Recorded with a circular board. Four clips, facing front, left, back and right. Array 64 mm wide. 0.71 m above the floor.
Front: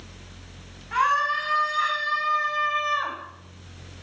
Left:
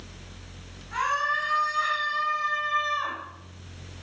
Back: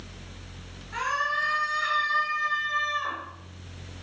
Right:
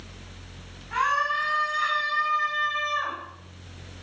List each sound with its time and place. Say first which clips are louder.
0.9 s a scream: right 2 dB, front 6 dB; 30° right, 5.5 m; by 3.2 s 15° right, 3.5 m